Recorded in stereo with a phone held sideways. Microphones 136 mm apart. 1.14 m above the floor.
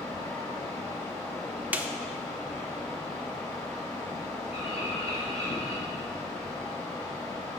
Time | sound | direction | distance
0.0 | a fan | 20° left (ahead or behind) | 3 m
1.7 | a snare drum | 15° right (ahead or behind) | 0.6 m
4.5 | a bird | 50° left (ahead or behind) | 2.5 m